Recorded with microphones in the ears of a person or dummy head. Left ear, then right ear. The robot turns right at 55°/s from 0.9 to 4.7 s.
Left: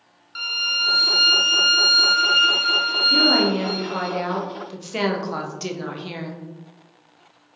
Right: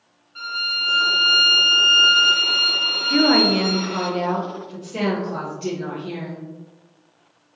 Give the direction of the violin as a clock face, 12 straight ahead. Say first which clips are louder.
Left 1 dB; 10 o'clock.